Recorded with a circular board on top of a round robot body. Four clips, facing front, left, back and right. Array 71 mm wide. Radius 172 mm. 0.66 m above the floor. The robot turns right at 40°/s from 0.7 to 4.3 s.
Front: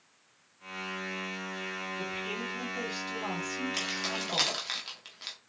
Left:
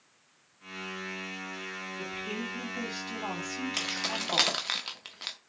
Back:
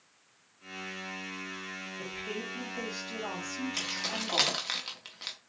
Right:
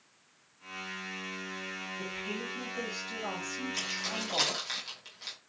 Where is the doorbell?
I don't hear a doorbell.